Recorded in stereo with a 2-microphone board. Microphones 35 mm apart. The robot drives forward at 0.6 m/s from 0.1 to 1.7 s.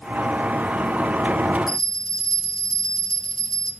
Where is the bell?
10° left (ahead or behind), 0.8 m.